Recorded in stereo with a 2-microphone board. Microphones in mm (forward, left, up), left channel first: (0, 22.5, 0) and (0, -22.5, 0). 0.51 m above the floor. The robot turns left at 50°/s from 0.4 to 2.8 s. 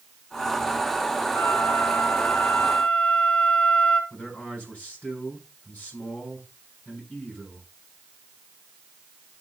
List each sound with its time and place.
1.3 s a flute: 100° left, 2 m; by 4.0 s 25° left, 2 m
4.1 s a man speaking: 35° left (ahead or behind), 5 m